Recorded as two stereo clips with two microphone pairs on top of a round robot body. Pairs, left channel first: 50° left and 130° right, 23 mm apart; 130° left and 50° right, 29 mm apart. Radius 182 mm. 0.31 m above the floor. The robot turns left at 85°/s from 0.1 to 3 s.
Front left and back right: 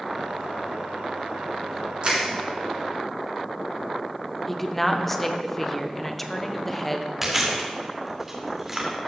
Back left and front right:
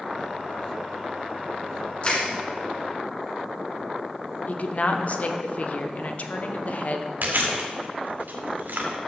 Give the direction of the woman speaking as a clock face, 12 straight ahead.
8 o'clock.